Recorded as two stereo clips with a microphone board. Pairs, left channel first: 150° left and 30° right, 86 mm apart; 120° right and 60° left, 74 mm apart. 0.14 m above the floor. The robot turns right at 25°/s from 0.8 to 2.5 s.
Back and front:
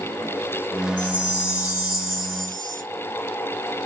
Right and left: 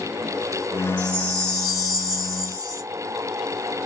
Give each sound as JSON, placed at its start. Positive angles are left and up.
{"t": 1.0, "sound": "a chime", "azimuth_deg": 25, "distance_m": 1.5}